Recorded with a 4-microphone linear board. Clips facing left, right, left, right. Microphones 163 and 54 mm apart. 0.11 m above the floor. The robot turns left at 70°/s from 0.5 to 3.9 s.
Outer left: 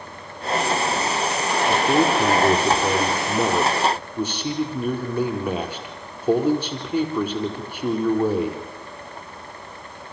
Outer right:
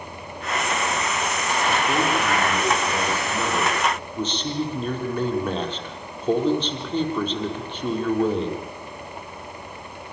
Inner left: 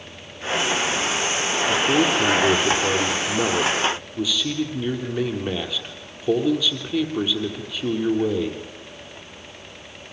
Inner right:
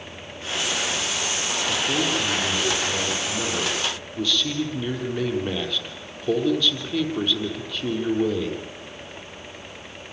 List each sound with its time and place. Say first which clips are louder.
1.7 s a man speaking: outer left 5 dB, inner left 5 dB; 165° left, 4 m; by 8.6 s 10° left, 4 m